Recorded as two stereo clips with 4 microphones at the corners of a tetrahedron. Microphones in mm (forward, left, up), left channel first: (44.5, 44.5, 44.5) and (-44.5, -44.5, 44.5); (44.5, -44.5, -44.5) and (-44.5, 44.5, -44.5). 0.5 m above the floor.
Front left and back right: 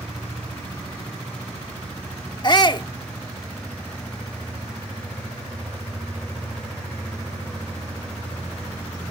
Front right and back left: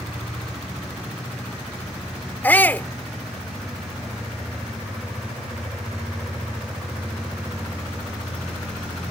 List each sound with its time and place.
2.4 s a shout: 20° left